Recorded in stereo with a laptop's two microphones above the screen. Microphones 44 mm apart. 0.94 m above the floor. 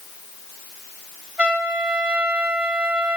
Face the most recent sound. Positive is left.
turn(degrees=-25)  # may be behind; listen again after turning